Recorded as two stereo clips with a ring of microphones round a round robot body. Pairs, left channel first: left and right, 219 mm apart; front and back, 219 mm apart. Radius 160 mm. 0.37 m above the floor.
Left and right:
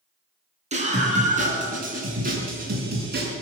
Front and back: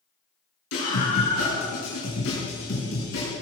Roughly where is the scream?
Ahead right.